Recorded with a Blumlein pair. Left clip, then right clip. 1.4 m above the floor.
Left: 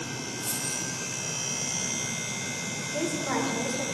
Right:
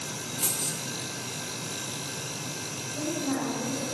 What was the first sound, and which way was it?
Keys jangling, 40° right.